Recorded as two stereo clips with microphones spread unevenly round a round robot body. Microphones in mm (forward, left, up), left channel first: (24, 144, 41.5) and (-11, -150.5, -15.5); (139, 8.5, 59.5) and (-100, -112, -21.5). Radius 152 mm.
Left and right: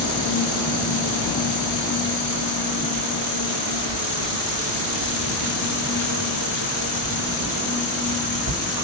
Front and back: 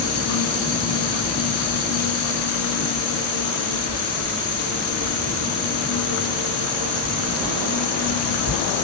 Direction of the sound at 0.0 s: 45° left.